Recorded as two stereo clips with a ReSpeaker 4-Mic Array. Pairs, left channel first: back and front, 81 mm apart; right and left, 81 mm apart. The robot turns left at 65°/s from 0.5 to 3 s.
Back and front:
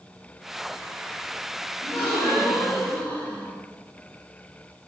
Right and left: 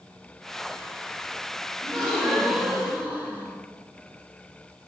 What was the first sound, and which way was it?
A gasp, 145° right.